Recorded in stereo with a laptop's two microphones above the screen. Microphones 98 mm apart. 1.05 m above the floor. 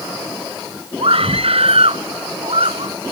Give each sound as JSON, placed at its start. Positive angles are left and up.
{"t": 1.0, "sound": "a scream", "side_deg": -70}